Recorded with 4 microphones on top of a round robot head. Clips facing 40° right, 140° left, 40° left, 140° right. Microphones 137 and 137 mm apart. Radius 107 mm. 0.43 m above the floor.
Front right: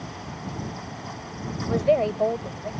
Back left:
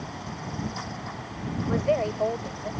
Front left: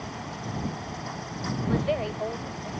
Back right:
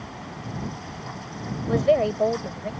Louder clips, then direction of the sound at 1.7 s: Front right 4 dB, back right 8 dB; 100° right.